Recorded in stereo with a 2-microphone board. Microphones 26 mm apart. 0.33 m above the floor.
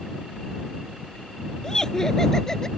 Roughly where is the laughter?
Left.